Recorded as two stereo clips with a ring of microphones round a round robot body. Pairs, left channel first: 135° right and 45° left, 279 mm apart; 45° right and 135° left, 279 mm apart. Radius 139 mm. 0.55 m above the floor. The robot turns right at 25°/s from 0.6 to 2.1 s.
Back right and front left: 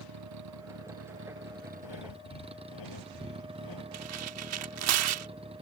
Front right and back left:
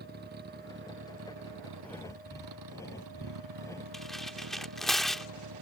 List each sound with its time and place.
0.0 s a vehicle: 80° left; by 5.6 s 115° left
1.8 s breathing: 130° right; by 3.8 s 125° right
3.9 s tearing paper: 45° left